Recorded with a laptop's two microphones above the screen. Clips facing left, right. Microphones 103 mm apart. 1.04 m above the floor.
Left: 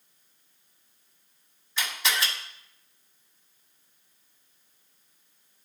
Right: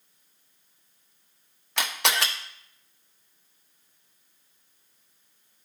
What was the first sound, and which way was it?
A camera shutter, 75° right (ahead or behind).